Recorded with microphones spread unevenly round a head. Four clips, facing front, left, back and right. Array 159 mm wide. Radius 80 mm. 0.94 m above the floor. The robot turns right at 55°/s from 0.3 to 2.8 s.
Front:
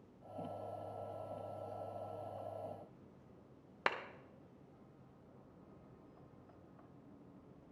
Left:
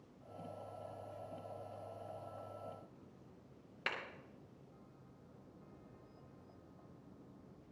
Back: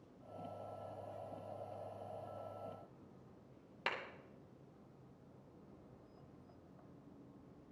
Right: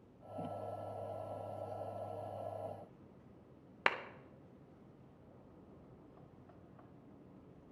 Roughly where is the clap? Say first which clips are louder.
Right 8 dB, front 4 dB; ahead right.